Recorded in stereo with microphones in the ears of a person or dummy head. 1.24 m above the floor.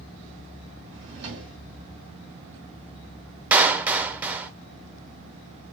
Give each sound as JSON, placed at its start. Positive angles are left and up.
{"t": 0.9, "sound": "a drawer", "side_deg": -60, "distance_m": 2.0}
{"t": 3.5, "sound": "a clap", "side_deg": -10, "distance_m": 0.5}